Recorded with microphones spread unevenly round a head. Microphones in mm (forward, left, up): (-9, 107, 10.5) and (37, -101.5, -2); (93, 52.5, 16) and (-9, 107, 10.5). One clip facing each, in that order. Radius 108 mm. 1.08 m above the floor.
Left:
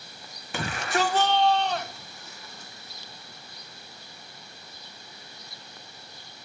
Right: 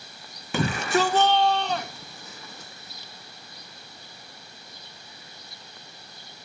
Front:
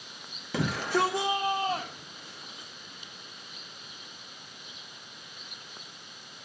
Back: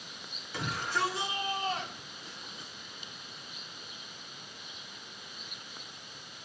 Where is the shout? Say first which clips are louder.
Right 5 dB, front 6 dB; 65° right, 0.7 m; by 2.7 s 110° right, 1.6 m.